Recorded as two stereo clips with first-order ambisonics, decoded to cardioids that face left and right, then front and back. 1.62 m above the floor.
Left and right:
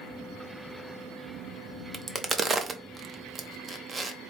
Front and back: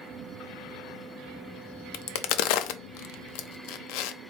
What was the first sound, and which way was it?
A crack, 15° right.